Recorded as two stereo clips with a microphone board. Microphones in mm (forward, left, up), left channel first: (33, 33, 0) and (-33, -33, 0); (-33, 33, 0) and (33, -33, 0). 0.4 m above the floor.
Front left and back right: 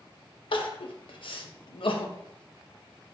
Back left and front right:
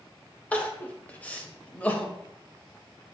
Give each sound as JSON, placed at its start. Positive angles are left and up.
{"t": 0.5, "sound": "crying", "azimuth_deg": 60, "distance_m": 0.5}